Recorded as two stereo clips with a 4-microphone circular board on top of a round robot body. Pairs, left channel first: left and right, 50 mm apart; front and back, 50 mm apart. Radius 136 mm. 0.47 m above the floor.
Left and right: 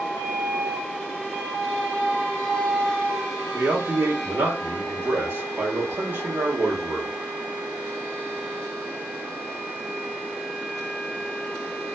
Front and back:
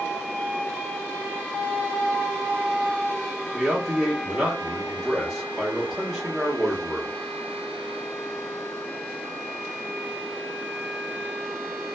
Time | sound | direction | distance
3.5 | a man speaking | 95° right | 1.1 m